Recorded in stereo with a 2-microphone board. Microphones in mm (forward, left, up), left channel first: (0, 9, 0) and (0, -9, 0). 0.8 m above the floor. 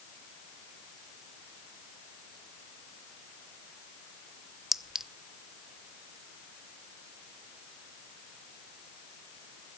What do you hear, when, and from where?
4.7 s a clink: 15° right (ahead or behind), 0.6 m